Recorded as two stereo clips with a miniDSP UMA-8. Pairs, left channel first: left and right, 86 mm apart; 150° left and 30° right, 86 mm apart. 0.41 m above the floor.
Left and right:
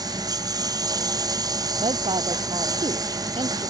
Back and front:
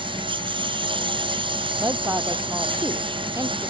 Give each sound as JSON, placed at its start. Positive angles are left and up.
{"t": 0.0, "sound": "a lawn mower", "azimuth_deg": -45}
{"t": 1.8, "sound": "a woman speaking", "azimuth_deg": -90}